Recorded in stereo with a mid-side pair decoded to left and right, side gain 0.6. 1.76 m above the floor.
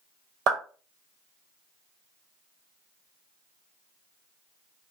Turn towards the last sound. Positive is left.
turn(degrees=-70)